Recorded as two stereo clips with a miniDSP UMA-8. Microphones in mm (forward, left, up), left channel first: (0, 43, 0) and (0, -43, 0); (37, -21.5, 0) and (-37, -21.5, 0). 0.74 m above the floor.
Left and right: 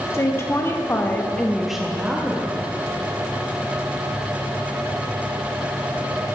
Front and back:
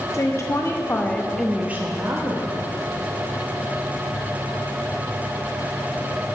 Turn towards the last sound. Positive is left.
turn(degrees=-155)